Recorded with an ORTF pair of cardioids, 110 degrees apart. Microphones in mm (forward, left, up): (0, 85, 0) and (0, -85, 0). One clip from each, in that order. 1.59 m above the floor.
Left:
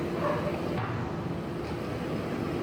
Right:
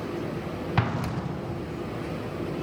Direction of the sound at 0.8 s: 65° right.